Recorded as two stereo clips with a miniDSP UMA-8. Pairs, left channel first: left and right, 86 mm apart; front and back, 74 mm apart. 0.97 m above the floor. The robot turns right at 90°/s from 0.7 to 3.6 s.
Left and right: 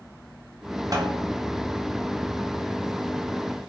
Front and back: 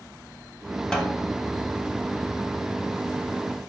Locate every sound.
0.9 s a snare drum: 80° right, 0.8 m; by 1.2 s 50° right, 0.8 m